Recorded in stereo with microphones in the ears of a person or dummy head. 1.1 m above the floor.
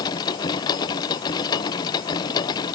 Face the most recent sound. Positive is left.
turn(degrees=30)  # may be behind; listen again after turning